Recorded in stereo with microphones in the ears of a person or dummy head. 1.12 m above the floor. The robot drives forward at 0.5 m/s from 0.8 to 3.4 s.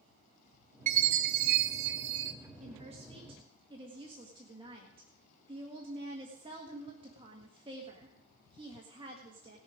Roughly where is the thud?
I don't hear a thud.